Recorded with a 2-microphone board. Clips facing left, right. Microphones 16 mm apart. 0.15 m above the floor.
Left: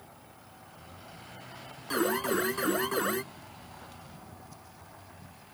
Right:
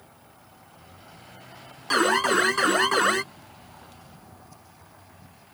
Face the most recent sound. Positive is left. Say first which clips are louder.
# right 8 dB
turn(degrees=-45)  # may be behind; listen again after turning